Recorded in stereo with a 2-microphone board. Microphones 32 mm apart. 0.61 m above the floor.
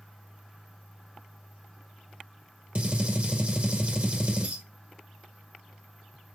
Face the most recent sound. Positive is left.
turn(degrees=-45)  # may be behind; listen again after turning